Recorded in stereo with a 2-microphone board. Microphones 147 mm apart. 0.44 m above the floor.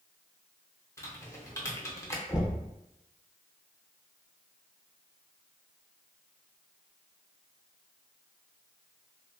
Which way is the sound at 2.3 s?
5° right (ahead or behind).